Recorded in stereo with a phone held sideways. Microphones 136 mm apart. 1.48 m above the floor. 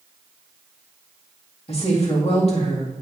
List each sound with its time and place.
1.7 s a woman speaking: 50° left (ahead or behind), 2 m